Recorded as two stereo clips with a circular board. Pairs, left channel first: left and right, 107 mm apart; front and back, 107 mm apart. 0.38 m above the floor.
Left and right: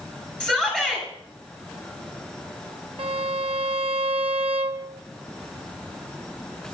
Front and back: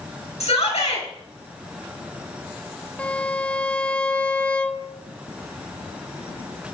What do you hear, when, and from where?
0.4 s a shout: 10° left, 5.5 m
3.0 s a violin: 80° right, 0.7 m